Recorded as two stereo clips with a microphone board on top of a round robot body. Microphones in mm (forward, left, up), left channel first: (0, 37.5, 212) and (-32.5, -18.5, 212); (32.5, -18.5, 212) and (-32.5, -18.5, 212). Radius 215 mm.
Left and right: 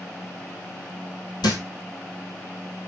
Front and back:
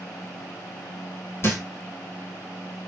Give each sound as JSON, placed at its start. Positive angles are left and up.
{"t": 1.4, "sound": "a thud", "azimuth_deg": 50, "distance_m": 1.7}